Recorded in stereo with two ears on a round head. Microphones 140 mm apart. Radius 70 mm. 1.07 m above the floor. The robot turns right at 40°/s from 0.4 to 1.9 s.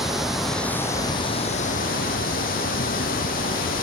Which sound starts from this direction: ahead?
Running water, at 0.0 s.